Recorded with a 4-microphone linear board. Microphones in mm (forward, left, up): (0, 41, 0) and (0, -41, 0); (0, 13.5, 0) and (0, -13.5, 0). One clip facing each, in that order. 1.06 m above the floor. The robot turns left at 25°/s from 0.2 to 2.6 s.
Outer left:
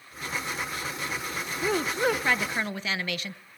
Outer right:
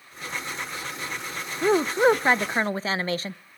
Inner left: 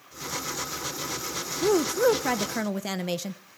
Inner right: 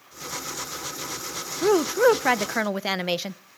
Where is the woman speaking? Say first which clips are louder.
Outer right 7 dB, inner right 3 dB; 30° right (ahead or behind), 0.6 m; by 3.4 s 35° right (ahead or behind), 0.6 m.